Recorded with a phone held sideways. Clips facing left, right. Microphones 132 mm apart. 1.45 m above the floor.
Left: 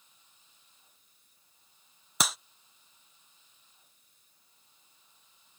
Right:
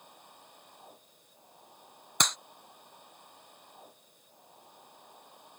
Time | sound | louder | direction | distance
0.0 | a machine running | right 16 dB | 65° right (ahead or behind) | ?
2.2 | a clap | even | 5° left (ahead or behind) | ?